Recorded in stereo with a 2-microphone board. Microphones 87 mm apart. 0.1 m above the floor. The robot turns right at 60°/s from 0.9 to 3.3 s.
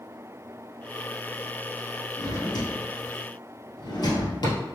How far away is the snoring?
No snoring in this recording.